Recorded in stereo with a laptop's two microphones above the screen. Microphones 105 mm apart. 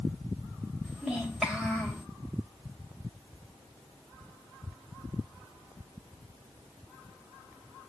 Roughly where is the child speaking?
Centre.